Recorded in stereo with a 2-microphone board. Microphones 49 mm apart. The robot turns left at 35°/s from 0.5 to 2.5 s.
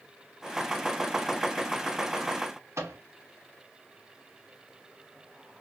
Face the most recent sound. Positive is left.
turn(degrees=-65)  # may be behind; listen again after turning